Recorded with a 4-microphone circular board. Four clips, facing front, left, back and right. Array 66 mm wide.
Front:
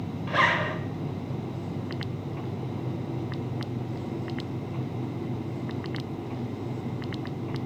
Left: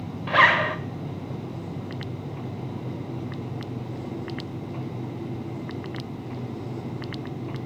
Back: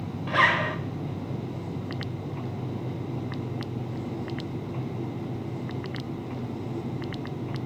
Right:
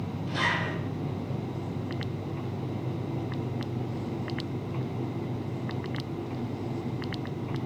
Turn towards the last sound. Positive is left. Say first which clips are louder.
# left 11 dB, back 2 dB
turn(degrees=95)